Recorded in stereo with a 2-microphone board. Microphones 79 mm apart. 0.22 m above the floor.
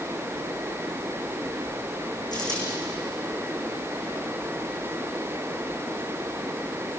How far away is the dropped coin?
About 7 m.